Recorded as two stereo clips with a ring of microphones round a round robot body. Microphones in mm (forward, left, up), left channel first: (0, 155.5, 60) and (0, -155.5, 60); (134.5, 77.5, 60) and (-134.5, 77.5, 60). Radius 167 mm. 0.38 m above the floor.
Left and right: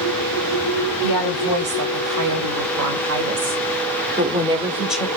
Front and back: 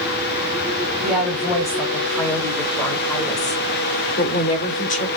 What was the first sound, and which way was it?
A woman speaking, 90° right.